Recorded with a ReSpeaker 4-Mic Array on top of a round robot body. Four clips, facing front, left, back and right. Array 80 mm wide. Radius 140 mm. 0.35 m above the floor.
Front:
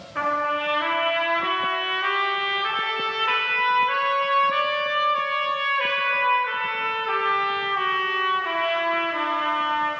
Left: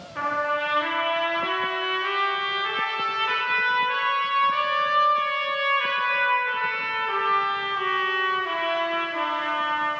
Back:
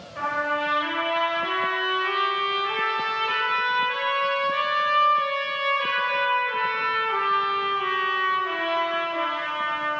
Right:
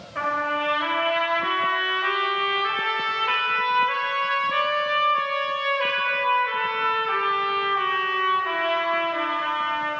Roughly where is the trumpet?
Ahead.